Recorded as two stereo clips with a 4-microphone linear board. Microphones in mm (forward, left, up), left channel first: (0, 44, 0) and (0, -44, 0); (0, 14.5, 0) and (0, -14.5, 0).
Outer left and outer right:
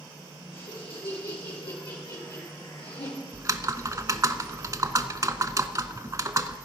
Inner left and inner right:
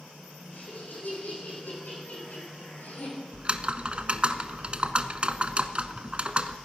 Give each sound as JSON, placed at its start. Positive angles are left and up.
{"t": 0.5, "sound": "laughter", "side_deg": 80, "distance_m": 7.0}
{"t": 3.3, "sound": "typing on a keyboard", "side_deg": -40, "distance_m": 0.7}